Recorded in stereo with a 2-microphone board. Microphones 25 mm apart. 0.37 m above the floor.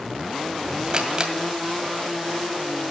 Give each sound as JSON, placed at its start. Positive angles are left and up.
{"t": 0.9, "sound": "a camera shutter", "side_deg": -35, "distance_m": 2.0}